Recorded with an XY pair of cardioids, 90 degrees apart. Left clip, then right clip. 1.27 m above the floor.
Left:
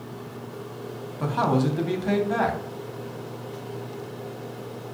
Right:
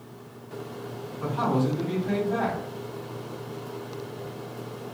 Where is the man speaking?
70° left, 0.7 m.